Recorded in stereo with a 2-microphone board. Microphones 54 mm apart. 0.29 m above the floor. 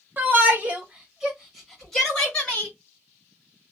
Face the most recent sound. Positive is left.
turn(degrees=20)  # may be behind; listen again after turning